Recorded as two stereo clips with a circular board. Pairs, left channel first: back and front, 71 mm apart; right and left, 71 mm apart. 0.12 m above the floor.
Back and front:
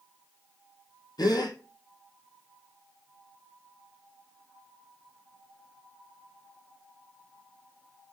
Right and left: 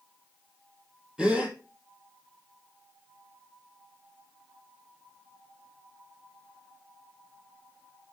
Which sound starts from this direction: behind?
A gasp, at 1.2 s.